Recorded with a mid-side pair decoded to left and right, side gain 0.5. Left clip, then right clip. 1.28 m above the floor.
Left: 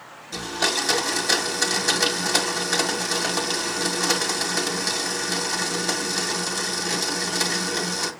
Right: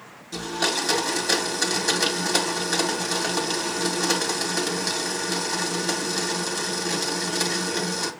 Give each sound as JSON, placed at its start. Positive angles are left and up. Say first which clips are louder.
{"t": 0.3, "sound": "a blender", "louder": "left 1 dB", "azimuth_deg": 5, "distance_m": 1.5}